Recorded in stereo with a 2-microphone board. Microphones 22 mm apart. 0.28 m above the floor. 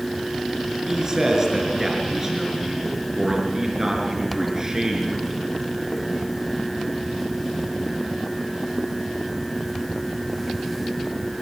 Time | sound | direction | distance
0.8 | a man speaking | 30° right (ahead or behind) | 5 m